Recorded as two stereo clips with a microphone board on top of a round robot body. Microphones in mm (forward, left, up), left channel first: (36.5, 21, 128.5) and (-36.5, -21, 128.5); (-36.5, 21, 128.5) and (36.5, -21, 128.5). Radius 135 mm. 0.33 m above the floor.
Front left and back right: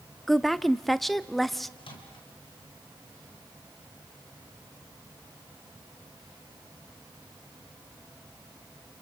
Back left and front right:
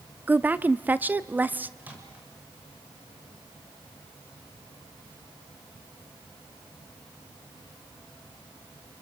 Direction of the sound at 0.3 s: 55° right.